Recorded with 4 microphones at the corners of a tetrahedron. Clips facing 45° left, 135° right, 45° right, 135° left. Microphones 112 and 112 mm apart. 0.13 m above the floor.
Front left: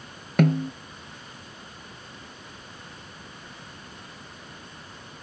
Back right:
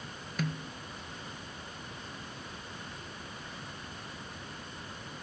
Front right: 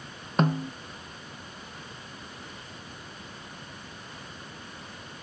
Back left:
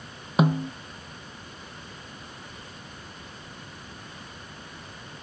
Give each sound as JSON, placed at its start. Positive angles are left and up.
{"t": 0.4, "sound": "a snare drum", "azimuth_deg": 55}